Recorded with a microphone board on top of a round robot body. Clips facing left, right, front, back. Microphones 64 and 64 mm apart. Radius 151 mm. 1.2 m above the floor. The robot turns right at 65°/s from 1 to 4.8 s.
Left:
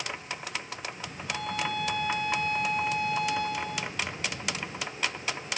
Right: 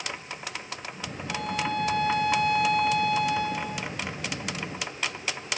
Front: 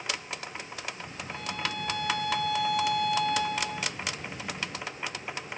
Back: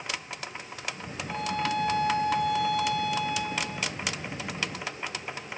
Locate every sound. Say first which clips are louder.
1.3 s a violin: right 2 dB, back 6 dB; 170° right, 3 m; by 3.9 s straight ahead, 3 m